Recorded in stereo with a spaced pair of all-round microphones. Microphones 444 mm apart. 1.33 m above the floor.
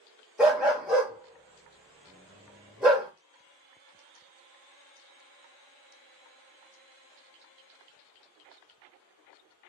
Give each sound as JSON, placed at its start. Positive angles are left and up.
{"t": 0.4, "sound": "a dog barking", "side_deg": 0, "distance_m": 1.2}